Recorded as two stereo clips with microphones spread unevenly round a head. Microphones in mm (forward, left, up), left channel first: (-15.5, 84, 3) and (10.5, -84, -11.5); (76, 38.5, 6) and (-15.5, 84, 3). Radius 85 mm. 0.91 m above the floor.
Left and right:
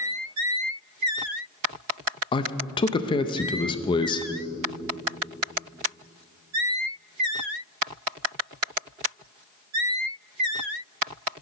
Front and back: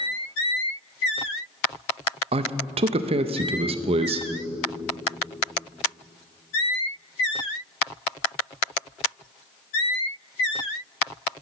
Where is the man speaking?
165° left, 0.5 m.